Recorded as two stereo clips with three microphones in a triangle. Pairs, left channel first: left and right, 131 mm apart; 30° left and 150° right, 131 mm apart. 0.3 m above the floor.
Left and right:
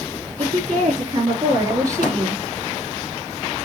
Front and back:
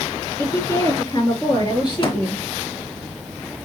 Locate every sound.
0.4 s a woman speaking: 30° right, 4 m; by 2.4 s 25° right, 5 m
2.0 s a microwave: 75° left, 2.5 m